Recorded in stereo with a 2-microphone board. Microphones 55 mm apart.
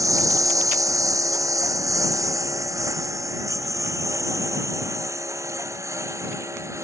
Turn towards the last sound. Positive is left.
turn(degrees=-65)  # may be behind; listen again after turning